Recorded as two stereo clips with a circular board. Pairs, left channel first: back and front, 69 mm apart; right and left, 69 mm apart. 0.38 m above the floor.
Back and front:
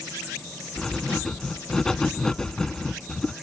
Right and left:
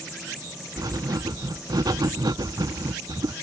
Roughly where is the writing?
Left.